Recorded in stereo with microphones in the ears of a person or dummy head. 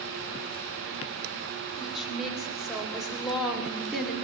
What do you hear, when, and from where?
1.8 s a woman speaking: centre (ahead or behind), 6 m